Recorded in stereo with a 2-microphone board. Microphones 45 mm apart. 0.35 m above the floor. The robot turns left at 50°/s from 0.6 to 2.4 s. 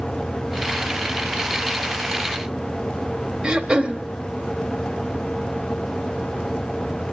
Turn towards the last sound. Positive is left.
turn(degrees=-25)  # may be behind; listen again after turning